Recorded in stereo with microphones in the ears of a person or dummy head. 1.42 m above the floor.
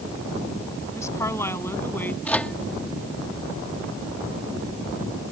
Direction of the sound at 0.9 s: 15° left (ahead or behind).